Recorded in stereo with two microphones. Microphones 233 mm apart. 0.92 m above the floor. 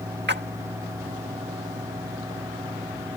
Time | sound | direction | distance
0.3 | a splash | 50° right (ahead or behind) | ?